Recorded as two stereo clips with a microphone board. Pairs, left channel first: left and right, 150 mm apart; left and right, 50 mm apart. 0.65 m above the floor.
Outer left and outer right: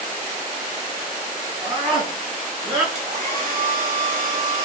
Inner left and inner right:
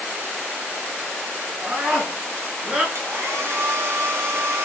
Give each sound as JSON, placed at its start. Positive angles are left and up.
{"t": 1.6, "sound": "a scream", "side_deg": -40, "distance_m": 6.5}
{"t": 3.0, "sound": "a hair dryer", "side_deg": -70, "distance_m": 3.5}